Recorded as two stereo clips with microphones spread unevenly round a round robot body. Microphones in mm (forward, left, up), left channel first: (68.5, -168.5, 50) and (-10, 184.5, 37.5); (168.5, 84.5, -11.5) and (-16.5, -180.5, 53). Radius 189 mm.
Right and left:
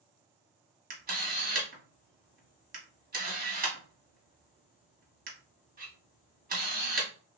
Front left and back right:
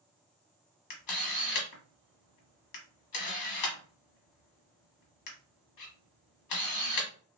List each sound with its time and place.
0.9 s a camera shutter: 35° left, 1.2 m